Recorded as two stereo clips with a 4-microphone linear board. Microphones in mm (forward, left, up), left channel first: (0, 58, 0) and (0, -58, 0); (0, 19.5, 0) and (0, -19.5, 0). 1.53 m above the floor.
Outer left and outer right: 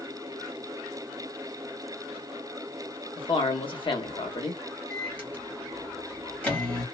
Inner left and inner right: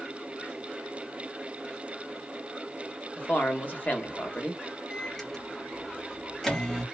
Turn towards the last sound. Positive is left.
turn(degrees=10)  # may be behind; listen again after turning